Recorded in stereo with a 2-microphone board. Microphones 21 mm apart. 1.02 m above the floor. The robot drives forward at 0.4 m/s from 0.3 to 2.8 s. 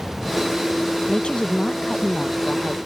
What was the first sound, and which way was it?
A woman speaking, 60° left (ahead or behind).